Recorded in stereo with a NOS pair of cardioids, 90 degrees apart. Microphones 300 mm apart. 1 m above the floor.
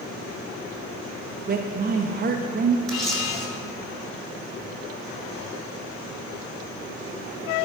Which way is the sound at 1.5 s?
30° right.